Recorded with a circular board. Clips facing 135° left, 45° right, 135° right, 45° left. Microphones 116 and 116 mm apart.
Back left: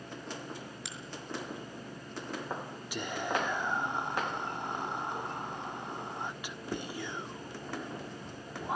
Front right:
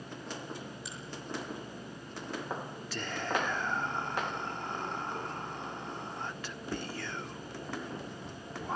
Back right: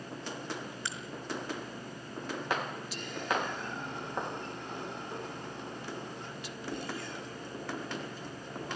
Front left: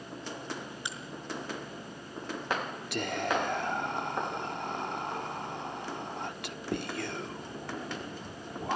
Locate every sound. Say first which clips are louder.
0.8 s a crack: front right 1 dB, front left 1 dB; 120° left, 5.5 m
2.9 s whispering: back left 1 dB, front left 4 dB; 60° left, 1.3 m